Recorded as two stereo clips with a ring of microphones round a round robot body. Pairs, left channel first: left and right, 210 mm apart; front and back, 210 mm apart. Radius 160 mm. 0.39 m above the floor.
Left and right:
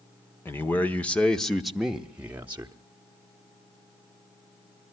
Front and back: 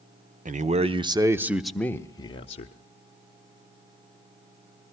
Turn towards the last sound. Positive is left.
turn(degrees=-20)